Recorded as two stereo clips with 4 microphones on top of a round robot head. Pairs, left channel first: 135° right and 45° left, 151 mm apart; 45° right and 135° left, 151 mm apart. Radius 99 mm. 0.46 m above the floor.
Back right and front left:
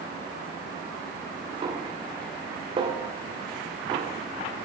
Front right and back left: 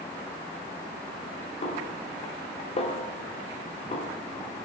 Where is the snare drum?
5° right, 1.6 m.